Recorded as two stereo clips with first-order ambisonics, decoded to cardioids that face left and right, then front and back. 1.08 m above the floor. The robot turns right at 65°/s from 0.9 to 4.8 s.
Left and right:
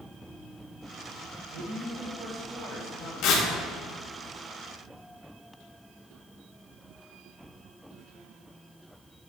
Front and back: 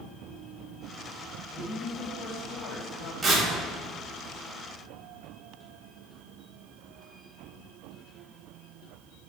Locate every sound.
1.5 s a man speaking: 70° right, 1.1 m; by 3.1 s 30° left, 1.1 m
3.2 s tearing paper: 95° left, 1.3 m; by 3.5 s 110° left, 1.3 m